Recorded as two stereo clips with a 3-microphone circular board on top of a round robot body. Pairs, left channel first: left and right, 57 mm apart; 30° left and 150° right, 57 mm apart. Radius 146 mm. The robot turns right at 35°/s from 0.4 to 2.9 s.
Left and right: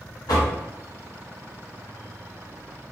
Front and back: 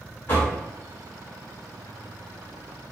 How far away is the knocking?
About 1.4 m.